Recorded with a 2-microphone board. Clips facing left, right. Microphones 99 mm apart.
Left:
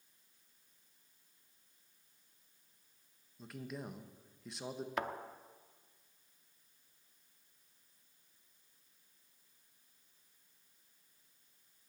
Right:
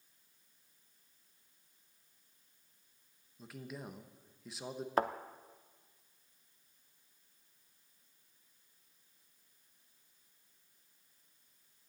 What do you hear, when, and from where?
3.4 s a man speaking: centre (ahead or behind), 0.9 m
5.0 s a thud: 40° right (ahead or behind), 0.6 m